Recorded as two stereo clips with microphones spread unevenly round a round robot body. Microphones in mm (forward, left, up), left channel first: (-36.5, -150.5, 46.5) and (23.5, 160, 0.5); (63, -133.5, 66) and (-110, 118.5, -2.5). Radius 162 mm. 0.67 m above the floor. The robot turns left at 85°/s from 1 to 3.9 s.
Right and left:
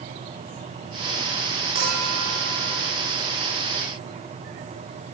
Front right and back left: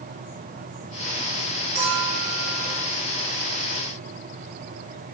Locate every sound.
1.8 s a clink: 85° left, 8.5 m; by 2.9 s 10° right, 8.5 m